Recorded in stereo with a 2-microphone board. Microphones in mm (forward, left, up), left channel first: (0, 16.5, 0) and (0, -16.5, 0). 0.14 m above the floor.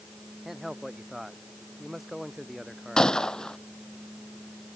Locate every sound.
0.5 s a man speaking: 5° right (ahead or behind)
3.0 s a gunshot: 20° left (ahead or behind)